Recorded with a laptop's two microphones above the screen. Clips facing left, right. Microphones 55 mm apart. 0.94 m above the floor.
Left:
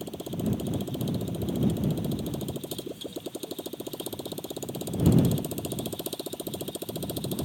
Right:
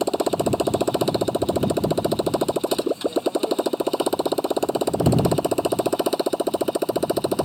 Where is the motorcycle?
75° right (ahead or behind); by 7.5 s 60° right (ahead or behind).